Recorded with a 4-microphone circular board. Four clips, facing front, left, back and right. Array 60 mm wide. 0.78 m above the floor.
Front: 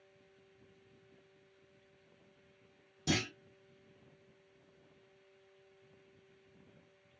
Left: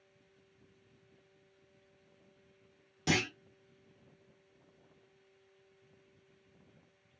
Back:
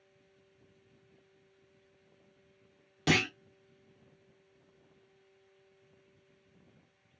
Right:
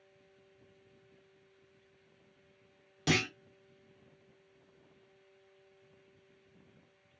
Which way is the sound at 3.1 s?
170° right.